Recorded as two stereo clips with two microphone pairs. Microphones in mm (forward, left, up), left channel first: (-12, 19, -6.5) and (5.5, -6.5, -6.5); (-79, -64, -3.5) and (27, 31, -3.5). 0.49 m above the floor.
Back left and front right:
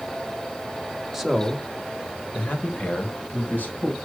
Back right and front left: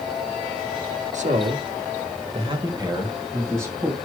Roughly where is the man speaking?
Ahead left.